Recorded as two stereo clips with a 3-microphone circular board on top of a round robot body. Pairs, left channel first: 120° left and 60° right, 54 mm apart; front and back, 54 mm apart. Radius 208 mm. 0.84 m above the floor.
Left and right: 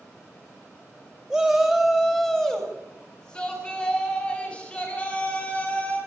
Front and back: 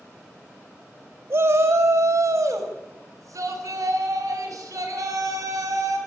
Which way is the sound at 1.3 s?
150° right.